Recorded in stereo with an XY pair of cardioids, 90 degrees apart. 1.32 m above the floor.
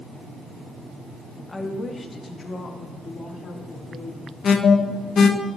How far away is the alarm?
About 1.0 m.